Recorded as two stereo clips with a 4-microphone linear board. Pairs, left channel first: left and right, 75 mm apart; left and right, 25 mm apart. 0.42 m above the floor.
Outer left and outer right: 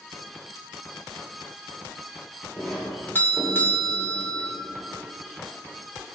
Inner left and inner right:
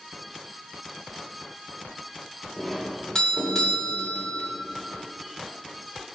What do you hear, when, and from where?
2.6 s a doorbell: 30° left (ahead or behind), 1.4 m